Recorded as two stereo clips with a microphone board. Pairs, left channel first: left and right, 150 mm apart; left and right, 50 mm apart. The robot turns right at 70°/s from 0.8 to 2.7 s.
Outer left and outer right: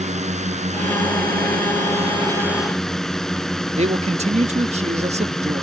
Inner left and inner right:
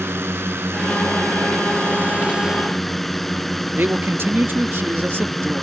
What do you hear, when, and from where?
0.0 s a drone: 130° right; by 5.6 s 5° left
3.8 s a man speaking: 50° right (ahead or behind)